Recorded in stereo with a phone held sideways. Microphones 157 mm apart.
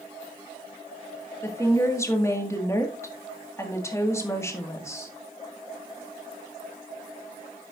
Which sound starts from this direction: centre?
A woman speaking, at 1.4 s.